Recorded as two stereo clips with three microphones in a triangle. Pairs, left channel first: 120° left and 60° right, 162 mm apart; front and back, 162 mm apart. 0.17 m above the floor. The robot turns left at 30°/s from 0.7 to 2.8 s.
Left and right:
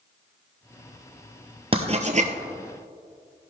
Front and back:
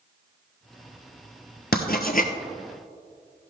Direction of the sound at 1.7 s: 10° right.